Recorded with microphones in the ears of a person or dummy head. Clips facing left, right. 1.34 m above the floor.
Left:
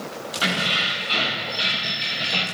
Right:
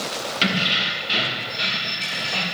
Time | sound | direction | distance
0.4 | keys jangling | 30° right (ahead or behind) | 1.0 m